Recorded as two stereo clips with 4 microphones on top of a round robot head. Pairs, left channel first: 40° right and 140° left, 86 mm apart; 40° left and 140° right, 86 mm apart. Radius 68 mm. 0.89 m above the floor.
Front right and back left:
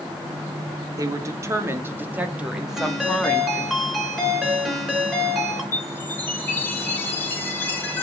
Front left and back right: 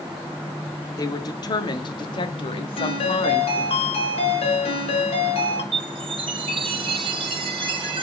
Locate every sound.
1.0 s a woman speaking: 90° left, 2.0 m; by 3.8 s 35° left, 1.8 m
2.8 s a ringtone: 55° left, 6.5 m
5.7 s a chime: 110° right, 2.5 m